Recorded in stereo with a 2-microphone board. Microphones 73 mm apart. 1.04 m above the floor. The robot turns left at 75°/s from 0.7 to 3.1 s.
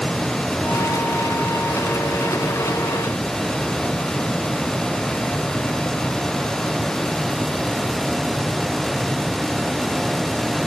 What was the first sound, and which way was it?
Only background noise.